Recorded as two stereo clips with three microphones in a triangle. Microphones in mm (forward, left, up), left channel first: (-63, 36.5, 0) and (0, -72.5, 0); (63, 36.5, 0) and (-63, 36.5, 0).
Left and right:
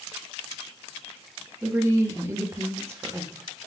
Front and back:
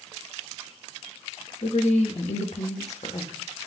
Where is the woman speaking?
5° left, 0.9 m.